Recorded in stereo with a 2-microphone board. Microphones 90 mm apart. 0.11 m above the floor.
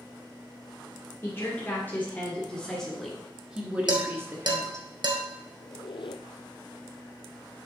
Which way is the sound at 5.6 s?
75° left (ahead or behind).